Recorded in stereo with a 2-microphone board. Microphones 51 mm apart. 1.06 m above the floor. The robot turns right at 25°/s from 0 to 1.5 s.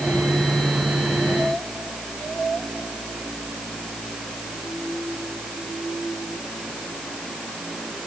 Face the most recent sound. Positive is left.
No sound to turn to.